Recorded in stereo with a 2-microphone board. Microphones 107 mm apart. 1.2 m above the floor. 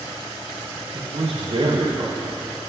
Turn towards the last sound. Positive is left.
turn(degrees=-60)  # may be behind; listen again after turning